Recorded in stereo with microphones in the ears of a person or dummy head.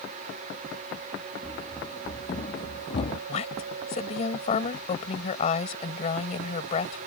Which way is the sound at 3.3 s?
45° left (ahead or behind).